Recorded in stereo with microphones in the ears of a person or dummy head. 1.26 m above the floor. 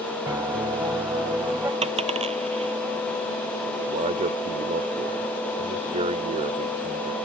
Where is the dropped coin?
30° right (ahead or behind).